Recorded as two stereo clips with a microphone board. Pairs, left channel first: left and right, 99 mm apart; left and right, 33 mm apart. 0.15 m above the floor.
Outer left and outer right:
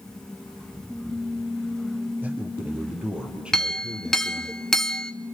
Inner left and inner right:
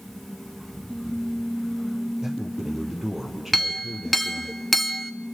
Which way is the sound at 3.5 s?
5° left (ahead or behind).